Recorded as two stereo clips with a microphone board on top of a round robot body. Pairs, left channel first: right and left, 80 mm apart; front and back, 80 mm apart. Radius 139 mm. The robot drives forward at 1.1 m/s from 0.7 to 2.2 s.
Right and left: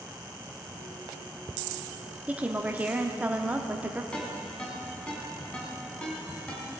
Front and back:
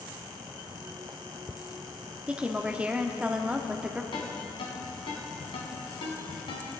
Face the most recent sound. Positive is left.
turn(degrees=-15)